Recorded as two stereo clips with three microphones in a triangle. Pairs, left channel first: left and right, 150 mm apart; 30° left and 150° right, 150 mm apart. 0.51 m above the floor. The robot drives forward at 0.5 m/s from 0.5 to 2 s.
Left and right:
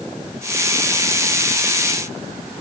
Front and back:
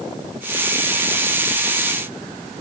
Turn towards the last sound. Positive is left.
No sound to turn to.